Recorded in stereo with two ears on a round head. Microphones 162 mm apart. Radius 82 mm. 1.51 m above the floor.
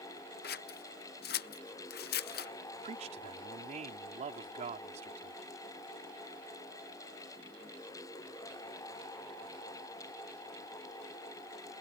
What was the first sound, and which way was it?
Scissors, 55° left (ahead or behind).